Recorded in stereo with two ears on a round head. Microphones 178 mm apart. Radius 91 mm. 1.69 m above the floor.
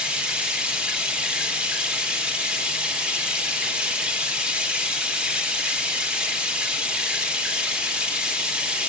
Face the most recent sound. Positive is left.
turn(degrees=-5)  # may be behind; listen again after turning